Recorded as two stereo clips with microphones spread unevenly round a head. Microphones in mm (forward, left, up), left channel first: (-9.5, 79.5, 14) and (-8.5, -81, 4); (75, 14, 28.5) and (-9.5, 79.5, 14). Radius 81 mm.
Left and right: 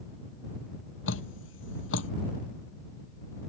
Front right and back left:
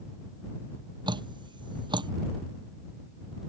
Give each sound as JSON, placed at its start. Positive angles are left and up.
{"t": 1.1, "sound": "dripping", "azimuth_deg": 95}